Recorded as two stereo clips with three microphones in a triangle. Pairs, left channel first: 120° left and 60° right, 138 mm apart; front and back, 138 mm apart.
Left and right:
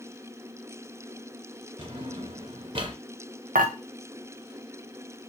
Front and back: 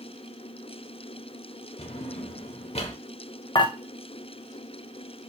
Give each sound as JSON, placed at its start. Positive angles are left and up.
{"t": 1.8, "sound": "a drawer", "azimuth_deg": -25, "distance_m": 0.7}
{"t": 3.5, "sound": "dishes clattering", "azimuth_deg": -55, "distance_m": 0.6}